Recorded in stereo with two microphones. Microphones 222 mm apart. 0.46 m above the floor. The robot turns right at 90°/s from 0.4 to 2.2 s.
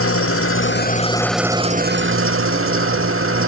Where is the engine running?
95° left, 0.8 m; by 3.5 s 105° right, 0.8 m.